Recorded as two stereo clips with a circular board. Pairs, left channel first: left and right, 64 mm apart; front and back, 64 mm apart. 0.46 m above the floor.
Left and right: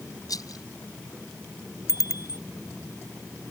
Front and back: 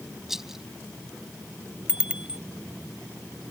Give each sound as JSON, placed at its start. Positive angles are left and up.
{"t": 0.3, "sound": "a rattle", "azimuth_deg": 95}
{"t": 1.9, "sound": "a bicycle bell", "azimuth_deg": 105}